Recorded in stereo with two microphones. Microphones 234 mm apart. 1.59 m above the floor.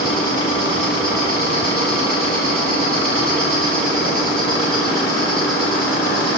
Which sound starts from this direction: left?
An insect, at 0.0 s.